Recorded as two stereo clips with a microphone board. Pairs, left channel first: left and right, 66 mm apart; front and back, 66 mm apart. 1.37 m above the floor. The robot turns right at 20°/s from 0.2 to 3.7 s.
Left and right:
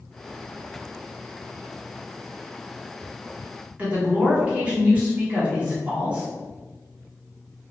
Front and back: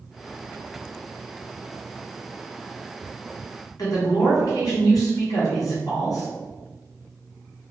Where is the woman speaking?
20° right, 1.0 m.